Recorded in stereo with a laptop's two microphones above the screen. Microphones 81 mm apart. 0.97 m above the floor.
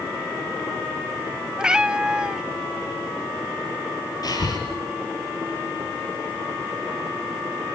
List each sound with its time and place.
1.6 s a cat meowing: 10° right (ahead or behind), 0.5 m
4.2 s breathing: 55° left (ahead or behind), 4.5 m